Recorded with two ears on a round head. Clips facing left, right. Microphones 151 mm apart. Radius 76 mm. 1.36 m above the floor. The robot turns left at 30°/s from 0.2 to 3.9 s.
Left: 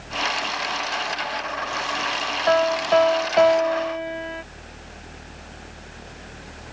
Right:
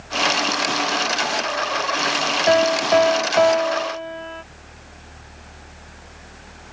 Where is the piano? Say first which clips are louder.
Right 2 dB; 150° right; by 4.4 s 165° left.